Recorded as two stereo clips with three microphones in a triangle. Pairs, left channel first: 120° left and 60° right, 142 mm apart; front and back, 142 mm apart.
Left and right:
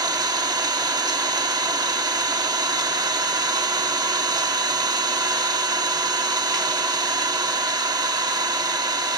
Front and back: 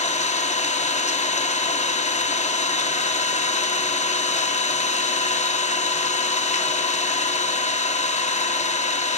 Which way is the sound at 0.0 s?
5° right.